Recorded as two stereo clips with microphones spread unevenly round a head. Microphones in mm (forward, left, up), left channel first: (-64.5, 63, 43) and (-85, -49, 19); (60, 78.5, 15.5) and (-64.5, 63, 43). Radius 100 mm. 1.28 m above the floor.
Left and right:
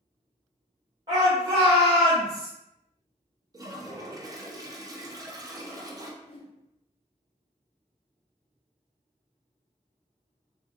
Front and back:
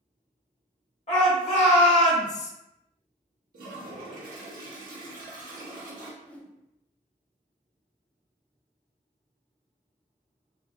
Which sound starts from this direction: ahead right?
A shout, at 1.1 s.